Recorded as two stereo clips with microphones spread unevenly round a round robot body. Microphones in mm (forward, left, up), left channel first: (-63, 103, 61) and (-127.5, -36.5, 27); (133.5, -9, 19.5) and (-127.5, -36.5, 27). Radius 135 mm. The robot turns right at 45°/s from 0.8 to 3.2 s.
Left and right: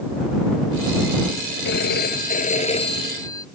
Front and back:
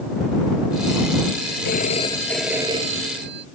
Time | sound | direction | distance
1.6 | a phone ringing | 60° left | ?